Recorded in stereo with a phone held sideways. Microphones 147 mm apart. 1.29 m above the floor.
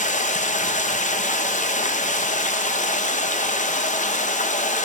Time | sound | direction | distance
0.0 | running water | 60° left (ahead or behind) | 0.8 m